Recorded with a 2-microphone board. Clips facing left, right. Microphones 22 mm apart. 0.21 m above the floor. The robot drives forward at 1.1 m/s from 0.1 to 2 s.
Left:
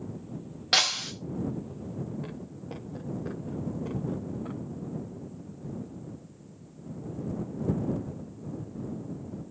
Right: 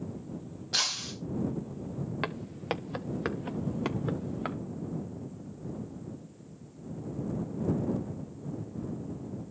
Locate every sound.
0.7 s breaking glass: 70° left (ahead or behind), 5.5 m; by 1.1 s 75° left (ahead or behind), 5.5 m
2.2 s footsteps: 80° right, 1.7 m; by 4.6 s 60° right (ahead or behind), 3 m